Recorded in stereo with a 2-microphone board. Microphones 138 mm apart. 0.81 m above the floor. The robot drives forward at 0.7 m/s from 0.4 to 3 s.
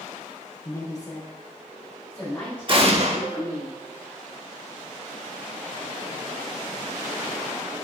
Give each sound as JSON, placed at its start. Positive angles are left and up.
{"t": 0.7, "sound": "a woman speaking", "side_deg": 25, "distance_m": 0.6}
{"t": 2.7, "sound": "an explosion", "side_deg": -40, "distance_m": 0.6}